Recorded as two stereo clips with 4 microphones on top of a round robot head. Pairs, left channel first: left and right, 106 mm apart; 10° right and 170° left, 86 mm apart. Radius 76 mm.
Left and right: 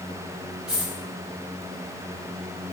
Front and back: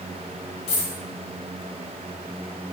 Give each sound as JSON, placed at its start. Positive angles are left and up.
{"t": 0.7, "sound": "a dropped coin", "azimuth_deg": -5, "distance_m": 2.0}